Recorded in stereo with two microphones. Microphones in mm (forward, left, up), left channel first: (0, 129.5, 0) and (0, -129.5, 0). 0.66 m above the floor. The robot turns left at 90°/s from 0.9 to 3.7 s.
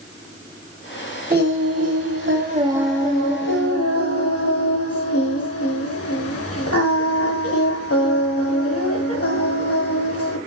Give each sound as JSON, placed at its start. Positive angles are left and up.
{"t": 1.3, "sound": "singing", "azimuth_deg": -40, "distance_m": 1.9}